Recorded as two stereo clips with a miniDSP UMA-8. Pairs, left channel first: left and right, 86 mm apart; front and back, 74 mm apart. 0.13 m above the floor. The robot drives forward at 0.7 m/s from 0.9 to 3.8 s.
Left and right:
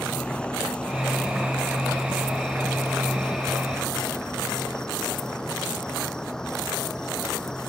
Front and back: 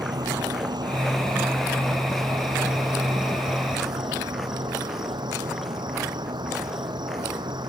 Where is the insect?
170° left.